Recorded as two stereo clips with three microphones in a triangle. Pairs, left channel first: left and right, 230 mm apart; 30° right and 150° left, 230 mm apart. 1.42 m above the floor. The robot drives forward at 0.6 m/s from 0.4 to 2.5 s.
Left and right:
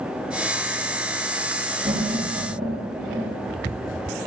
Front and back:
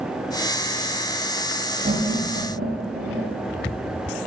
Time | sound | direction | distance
1.8 | laughter | 155° right | 1.1 m